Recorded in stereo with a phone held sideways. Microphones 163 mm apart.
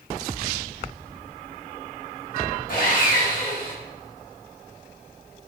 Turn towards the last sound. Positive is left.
turn(degrees=90)